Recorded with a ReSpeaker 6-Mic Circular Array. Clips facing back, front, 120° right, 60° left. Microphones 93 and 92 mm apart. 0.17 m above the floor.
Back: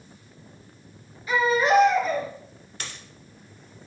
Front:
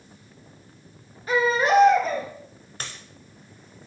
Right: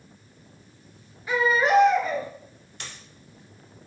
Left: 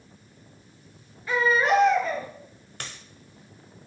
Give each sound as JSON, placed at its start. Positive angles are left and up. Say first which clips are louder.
{"t": 1.3, "sound": "a baby crying", "louder": "even, right 1 dB", "azimuth_deg": -45, "distance_m": 0.8}
{"t": 2.8, "sound": "a dropped coin", "louder": "front 1 dB, left 2 dB", "azimuth_deg": 40, "distance_m": 0.6}